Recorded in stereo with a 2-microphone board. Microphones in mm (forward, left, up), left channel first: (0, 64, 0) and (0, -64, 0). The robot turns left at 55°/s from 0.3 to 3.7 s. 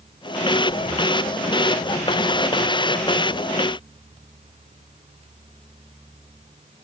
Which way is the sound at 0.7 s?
45° left (ahead or behind).